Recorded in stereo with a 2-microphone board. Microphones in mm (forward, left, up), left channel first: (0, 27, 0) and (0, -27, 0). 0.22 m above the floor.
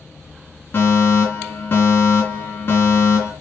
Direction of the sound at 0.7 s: 35° left (ahead or behind).